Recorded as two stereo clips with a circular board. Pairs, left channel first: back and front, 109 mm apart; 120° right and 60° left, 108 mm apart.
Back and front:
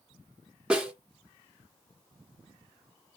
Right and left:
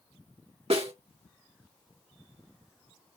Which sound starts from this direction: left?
A snare drum, at 0.7 s.